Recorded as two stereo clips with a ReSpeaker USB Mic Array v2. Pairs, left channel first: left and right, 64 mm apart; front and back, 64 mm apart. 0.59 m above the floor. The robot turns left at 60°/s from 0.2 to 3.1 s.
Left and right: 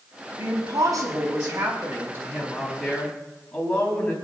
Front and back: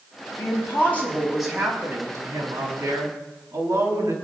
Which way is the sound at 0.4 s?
35° right.